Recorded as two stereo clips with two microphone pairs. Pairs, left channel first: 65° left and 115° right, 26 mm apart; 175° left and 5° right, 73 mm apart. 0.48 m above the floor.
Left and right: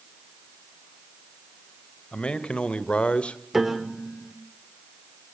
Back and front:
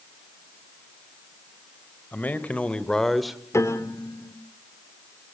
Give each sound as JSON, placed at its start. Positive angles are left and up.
{"t": 2.1, "sound": "a man speaking", "azimuth_deg": 115, "distance_m": 2.0}
{"t": 3.5, "sound": "a piano", "azimuth_deg": 170, "distance_m": 1.5}